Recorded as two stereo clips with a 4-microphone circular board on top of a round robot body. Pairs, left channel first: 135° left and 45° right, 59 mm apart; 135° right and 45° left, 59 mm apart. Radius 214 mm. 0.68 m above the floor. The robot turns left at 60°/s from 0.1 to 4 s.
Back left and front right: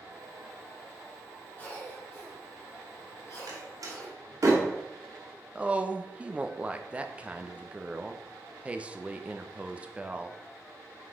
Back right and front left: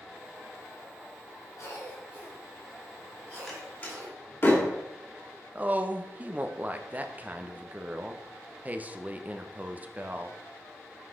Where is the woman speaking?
5° left, 1.0 m.